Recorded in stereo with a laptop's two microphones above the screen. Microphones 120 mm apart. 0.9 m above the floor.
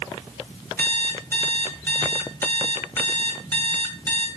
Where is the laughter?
I don't hear laughter.